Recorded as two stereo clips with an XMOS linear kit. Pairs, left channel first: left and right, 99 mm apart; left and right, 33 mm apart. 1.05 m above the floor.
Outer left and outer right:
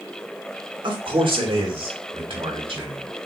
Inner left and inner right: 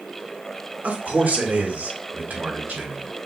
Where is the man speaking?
60° right (ahead or behind), 1.2 m; by 3.1 s 75° right (ahead or behind), 2.5 m.